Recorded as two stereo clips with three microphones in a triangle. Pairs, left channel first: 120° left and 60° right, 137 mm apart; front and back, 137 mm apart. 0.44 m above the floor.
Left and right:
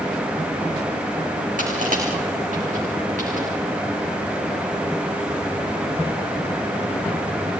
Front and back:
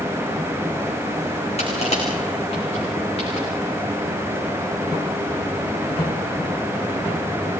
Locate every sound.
1.6 s crushing: 40° right, 6 m